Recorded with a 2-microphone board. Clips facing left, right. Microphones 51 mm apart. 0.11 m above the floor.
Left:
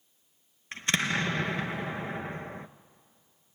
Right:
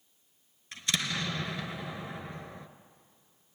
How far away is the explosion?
About 0.7 m.